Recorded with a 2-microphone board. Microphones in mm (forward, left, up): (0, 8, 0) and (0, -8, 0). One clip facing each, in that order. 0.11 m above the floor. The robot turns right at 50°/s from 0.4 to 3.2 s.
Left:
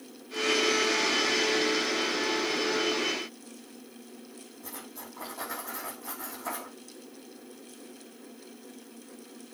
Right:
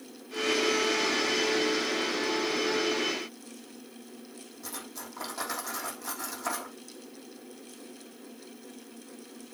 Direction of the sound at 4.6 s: 75° right (ahead or behind).